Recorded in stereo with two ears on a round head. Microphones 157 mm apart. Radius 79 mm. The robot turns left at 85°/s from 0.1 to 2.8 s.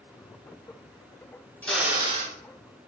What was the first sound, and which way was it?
A drill, 10° left.